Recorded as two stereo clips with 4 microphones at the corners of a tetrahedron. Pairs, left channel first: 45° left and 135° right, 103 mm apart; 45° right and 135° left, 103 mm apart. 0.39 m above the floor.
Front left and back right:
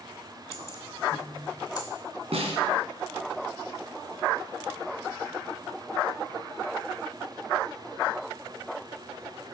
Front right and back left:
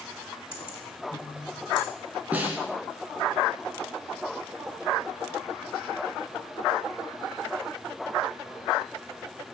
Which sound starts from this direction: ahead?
Keys jangling, at 0.5 s.